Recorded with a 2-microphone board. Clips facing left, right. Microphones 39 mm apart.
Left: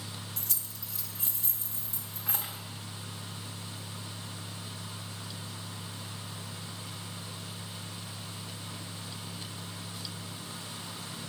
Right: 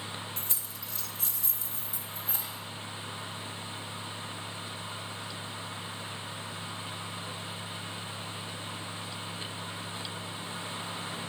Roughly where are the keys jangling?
Right.